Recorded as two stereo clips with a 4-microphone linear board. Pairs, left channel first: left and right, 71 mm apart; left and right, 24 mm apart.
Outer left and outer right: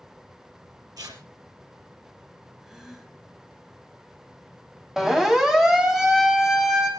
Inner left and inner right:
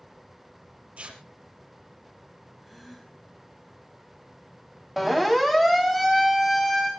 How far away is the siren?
About 3.5 m.